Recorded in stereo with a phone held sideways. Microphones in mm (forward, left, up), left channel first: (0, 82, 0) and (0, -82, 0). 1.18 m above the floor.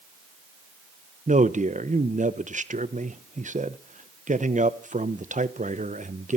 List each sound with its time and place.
1.3 s a man speaking: 45° right (ahead or behind), 1.0 m